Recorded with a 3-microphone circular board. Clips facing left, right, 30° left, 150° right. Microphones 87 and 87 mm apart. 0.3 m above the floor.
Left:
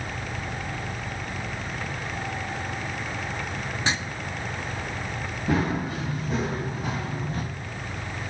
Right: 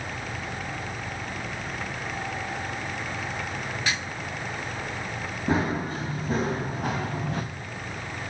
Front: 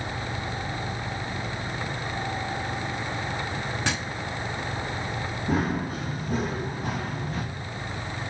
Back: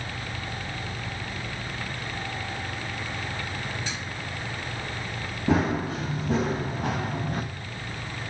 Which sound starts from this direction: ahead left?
Writing, at 3.9 s.